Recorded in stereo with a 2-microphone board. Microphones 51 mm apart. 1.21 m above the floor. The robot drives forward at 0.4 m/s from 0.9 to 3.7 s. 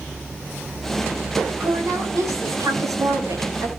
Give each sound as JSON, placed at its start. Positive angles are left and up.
{"t": 1.6, "sound": "a woman speaking", "side_deg": -85, "distance_m": 10.0}